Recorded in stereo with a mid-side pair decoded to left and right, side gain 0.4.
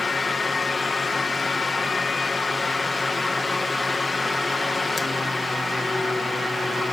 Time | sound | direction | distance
0.0 | a fan | 30° left | ?